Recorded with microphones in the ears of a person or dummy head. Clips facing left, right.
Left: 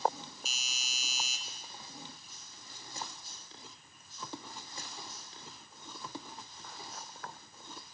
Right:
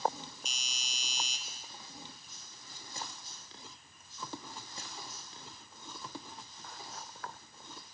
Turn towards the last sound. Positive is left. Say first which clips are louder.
# even
turn(degrees=0)  # may be behind; listen again after turning